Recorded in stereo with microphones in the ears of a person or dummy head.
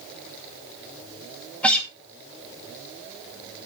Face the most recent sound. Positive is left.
turn(degrees=5)  # may be behind; listen again after turning